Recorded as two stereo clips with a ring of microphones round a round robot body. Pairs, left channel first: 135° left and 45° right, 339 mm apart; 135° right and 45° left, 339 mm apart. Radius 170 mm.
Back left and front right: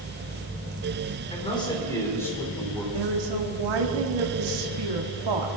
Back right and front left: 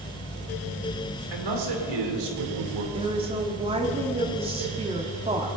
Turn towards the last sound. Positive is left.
turn(degrees=-30)